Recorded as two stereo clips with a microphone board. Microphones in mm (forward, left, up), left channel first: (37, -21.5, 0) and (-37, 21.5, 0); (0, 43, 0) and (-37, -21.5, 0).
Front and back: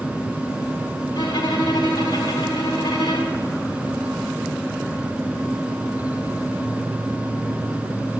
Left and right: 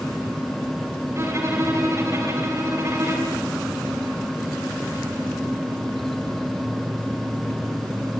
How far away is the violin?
About 4.5 m.